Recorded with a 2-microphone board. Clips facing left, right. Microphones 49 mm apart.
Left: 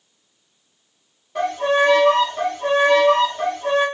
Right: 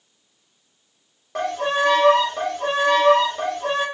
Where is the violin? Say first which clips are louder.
Left 4 dB; 80° right, 1.4 m.